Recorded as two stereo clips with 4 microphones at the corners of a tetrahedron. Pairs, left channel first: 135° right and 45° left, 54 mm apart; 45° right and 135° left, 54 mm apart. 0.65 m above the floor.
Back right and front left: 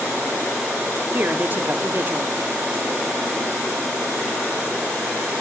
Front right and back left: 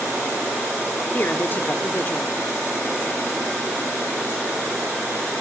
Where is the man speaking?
Straight ahead, 1.1 m.